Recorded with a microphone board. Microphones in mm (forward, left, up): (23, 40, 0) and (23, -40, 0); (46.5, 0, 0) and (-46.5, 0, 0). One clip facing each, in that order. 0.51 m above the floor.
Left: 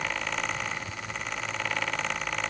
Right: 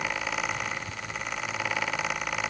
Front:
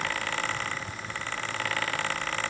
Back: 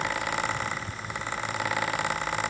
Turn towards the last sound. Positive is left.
No sound to turn to.